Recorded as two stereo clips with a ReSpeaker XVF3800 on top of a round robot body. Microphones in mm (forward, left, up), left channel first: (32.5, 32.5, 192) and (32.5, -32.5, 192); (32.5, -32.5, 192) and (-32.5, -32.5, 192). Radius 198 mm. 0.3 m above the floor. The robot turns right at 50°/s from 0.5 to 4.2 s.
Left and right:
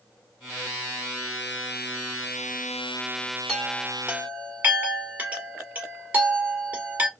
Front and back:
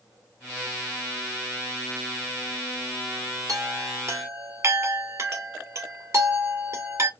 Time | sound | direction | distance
3.5 | a chime | 175° left | 1.9 m